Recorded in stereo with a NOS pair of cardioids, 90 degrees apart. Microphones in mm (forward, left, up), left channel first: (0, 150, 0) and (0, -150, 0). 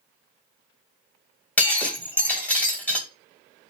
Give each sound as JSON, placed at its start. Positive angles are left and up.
{"t": 1.6, "sound": "breaking glass", "azimuth_deg": 5, "distance_m": 2.0}